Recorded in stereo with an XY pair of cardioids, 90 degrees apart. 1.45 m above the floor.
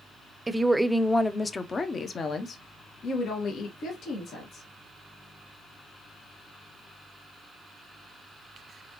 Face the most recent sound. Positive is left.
turn(degrees=75)